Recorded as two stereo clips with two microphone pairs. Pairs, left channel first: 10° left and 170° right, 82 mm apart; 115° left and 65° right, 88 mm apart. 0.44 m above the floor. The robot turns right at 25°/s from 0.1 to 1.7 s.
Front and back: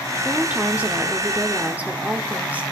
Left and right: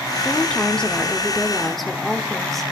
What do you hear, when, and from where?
0.2 s a woman speaking: 160° left, 0.7 m; by 2.6 s 160° right, 0.7 m